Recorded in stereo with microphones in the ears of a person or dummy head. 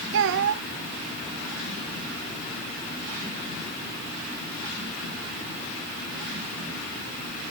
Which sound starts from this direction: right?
A child speaking, at 0.1 s.